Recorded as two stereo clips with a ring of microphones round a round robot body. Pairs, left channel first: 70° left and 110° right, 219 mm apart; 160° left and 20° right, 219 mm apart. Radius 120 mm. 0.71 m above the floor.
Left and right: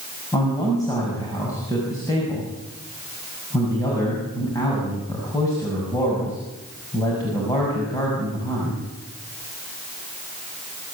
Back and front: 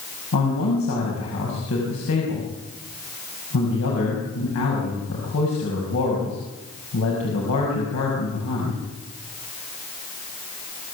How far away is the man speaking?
About 6 m.